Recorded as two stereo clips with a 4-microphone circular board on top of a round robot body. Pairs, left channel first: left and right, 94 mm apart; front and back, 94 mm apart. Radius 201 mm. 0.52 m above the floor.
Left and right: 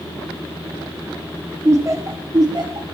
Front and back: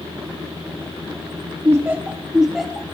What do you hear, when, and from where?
1.6 s laughter: 135° right, 1.5 m; by 2.8 s 85° right, 1.7 m